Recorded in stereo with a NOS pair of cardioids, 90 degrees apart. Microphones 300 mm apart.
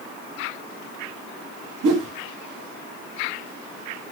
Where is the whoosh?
65° right, 1.4 m.